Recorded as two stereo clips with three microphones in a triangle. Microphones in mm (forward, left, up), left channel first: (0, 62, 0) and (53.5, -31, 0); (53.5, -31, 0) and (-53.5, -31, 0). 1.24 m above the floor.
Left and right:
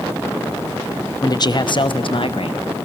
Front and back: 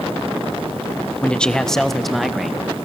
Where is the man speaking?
75° left, 0.9 m; by 2.8 s 95° left, 1.9 m.